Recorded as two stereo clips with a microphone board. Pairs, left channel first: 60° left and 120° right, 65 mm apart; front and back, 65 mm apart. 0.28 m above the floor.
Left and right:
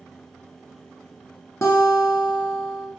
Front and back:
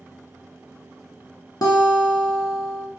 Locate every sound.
1.6 s a guitar: 15° left, 0.7 m